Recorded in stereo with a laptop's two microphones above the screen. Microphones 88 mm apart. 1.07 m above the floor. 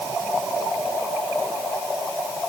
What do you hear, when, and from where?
Only background noise.